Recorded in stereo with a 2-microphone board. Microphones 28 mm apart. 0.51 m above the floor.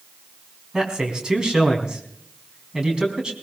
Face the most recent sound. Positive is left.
turn(degrees=-30)  # may be behind; listen again after turning